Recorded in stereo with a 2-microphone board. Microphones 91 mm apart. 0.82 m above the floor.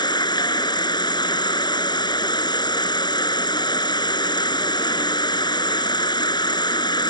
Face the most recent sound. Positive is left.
turn(degrees=55)  # may be behind; listen again after turning